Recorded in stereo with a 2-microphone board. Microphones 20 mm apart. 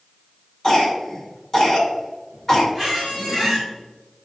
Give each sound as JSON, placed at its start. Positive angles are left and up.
{"t": 0.6, "sound": "a cough", "side_deg": 20, "distance_m": 1.9}
{"t": 2.8, "sound": "a squeak", "side_deg": -5, "distance_m": 1.9}